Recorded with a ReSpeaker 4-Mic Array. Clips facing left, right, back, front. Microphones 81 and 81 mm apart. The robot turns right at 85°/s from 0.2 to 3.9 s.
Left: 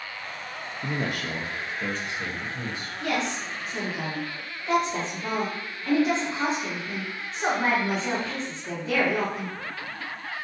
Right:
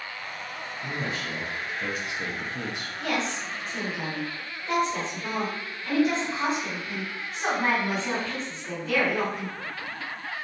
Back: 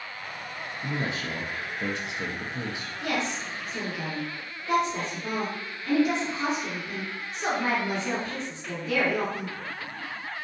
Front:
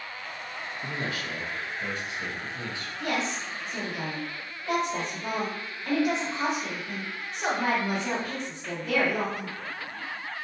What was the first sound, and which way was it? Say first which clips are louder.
A man speaking: left 3 dB, back 3 dB; 90° left.